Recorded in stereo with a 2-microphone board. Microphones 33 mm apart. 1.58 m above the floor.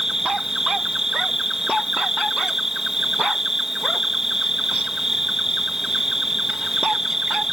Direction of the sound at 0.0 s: 10° right (ahead or behind).